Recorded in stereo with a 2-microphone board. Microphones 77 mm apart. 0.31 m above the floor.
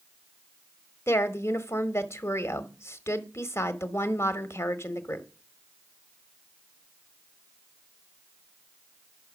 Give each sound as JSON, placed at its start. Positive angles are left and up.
{"t": 1.1, "sound": "a woman speaking", "side_deg": 35, "distance_m": 1.2}